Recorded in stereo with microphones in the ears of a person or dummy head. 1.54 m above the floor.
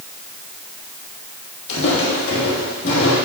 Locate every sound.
1.7 s footsteps: 55° left (ahead or behind), 2.5 m; by 3.1 s 40° left (ahead or behind), 3 m